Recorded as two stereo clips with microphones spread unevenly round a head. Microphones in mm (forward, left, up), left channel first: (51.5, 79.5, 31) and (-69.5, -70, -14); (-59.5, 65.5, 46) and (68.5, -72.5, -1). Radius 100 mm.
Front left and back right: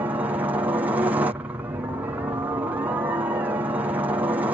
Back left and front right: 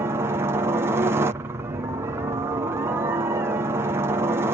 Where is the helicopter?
80° right.